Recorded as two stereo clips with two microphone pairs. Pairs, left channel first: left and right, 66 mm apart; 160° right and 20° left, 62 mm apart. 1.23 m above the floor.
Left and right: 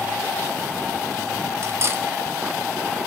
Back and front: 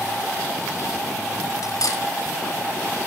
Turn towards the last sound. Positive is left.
turn(degrees=-135)